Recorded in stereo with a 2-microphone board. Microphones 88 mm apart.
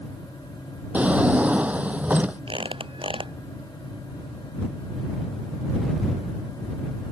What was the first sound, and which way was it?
A drawer, 15° right (ahead or behind).